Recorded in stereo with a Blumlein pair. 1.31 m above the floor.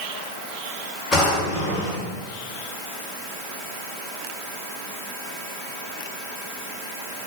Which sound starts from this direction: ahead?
A drawer, at 1.1 s.